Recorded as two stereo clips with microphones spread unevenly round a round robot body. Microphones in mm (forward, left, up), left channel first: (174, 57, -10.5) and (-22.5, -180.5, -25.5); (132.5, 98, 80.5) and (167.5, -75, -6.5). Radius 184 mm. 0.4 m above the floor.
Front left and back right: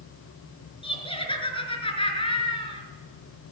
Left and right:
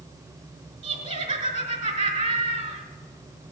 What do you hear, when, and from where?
0.8 s laughter: 25° right, 4.5 m